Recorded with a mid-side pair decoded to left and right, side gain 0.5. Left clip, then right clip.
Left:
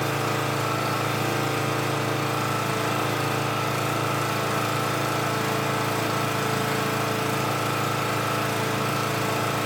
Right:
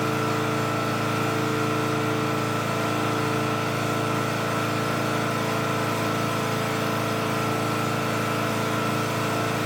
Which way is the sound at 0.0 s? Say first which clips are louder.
Right 1 dB; 70° left.